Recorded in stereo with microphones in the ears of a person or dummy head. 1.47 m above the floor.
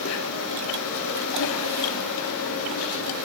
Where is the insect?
70° left (ahead or behind), 5.5 m.